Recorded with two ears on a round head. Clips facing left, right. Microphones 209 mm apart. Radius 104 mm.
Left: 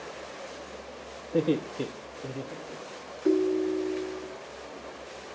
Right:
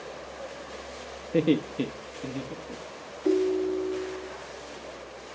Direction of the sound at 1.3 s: 35° right (ahead or behind).